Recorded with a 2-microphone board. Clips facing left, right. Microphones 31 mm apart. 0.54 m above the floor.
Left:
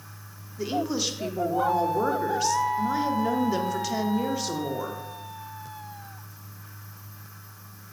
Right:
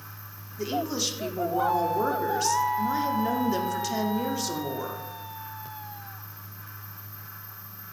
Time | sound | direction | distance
0.6 | a woman speaking | 5° left (ahead or behind) | 0.8 m